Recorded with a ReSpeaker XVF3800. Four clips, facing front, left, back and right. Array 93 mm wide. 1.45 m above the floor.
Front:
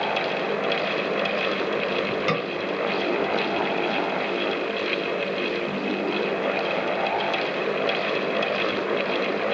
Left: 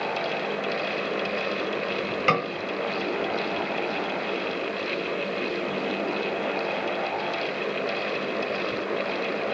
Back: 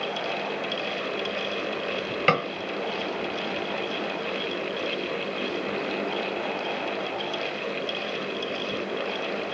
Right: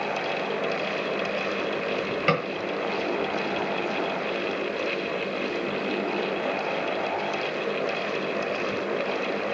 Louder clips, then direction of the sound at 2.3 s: Left 2 dB, back 2 dB; 170° left.